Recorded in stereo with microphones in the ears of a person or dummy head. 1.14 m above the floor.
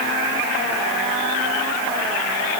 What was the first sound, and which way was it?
Only background noise.